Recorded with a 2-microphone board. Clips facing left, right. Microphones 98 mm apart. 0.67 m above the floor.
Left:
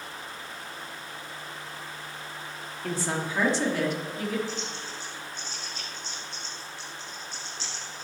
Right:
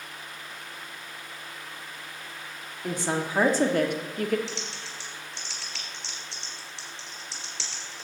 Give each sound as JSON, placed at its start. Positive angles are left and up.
{"t": 2.8, "sound": "a woman speaking", "side_deg": -15, "distance_m": 1.2}
{"t": 4.5, "sound": "typing on a keyboard", "side_deg": -70, "distance_m": 3.0}